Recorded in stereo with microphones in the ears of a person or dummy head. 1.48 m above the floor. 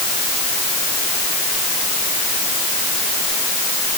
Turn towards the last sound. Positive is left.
No sound to turn to.